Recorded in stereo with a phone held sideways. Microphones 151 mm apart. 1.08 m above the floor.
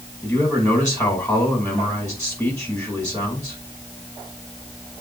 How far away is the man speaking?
About 5.5 m.